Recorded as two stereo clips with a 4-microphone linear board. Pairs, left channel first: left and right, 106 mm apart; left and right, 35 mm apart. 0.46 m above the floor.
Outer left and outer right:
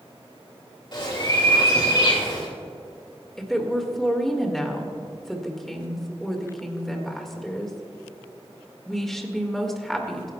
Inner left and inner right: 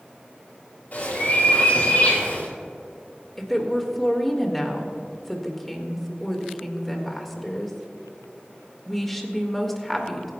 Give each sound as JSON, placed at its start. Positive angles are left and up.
{"t": 0.9, "sound": "a bird", "side_deg": 45, "distance_m": 5.0}
{"t": 3.4, "sound": "a woman speaking", "side_deg": 5, "distance_m": 1.7}